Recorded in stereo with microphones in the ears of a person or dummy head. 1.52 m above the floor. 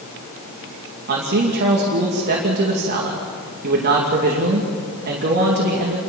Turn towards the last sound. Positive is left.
turn(degrees=-55)  # may be behind; listen again after turning